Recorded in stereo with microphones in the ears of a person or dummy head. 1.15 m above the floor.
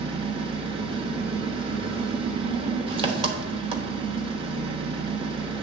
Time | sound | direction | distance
0.0 | an engine running | 40° right (ahead or behind) | 1.1 m